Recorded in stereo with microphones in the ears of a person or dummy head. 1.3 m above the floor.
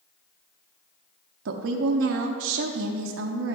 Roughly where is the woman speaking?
Right.